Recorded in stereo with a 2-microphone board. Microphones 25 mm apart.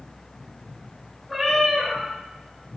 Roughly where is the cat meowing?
Centre.